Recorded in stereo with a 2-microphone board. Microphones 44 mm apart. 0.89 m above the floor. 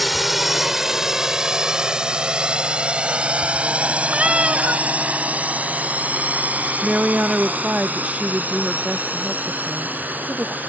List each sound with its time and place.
0.0 s a drone: centre (ahead or behind); by 10.7 s 40° right (ahead or behind)
4.1 s a cat meowing: 30° right (ahead or behind)
6.8 s a woman speaking: 30° right (ahead or behind)